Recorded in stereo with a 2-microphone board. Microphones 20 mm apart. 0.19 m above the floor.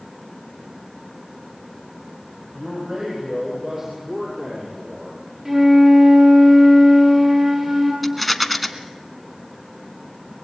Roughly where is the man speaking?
Centre.